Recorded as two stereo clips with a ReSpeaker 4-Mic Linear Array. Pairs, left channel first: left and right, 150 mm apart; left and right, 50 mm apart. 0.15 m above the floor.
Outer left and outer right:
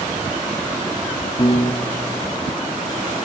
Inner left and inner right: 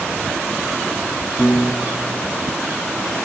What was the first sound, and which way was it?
A piano, 35° left (ahead or behind).